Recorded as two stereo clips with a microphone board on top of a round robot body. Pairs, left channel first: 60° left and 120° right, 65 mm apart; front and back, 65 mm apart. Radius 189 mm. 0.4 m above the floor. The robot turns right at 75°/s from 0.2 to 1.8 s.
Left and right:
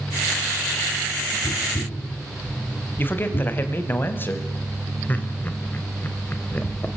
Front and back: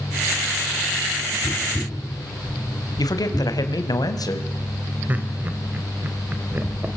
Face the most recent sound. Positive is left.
turn(degrees=120)